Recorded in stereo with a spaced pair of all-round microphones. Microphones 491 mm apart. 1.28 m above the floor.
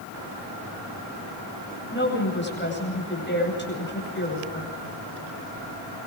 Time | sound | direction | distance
1.9 | a woman speaking | 20° left (ahead or behind) | 9 m